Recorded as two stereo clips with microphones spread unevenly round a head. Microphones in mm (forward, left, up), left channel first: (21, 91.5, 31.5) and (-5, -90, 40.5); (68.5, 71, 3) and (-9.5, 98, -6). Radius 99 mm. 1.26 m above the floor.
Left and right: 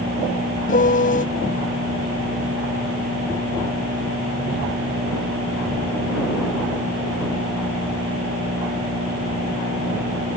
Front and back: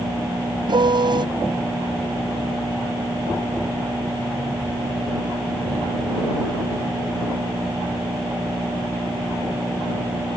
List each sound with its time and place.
0.7 s a piano: 130° left